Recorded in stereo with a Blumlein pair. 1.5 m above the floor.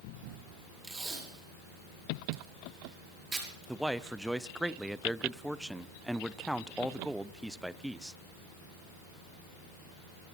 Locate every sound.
0.8 s tape being pulled: 10° right, 6 m
3.7 s a man speaking: 5° right, 0.6 m